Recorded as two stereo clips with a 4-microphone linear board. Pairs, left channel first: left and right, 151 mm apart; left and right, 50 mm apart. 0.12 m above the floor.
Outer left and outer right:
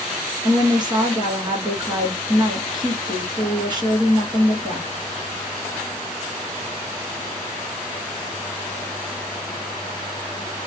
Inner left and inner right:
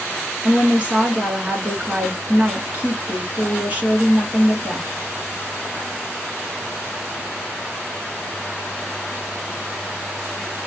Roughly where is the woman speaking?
Right.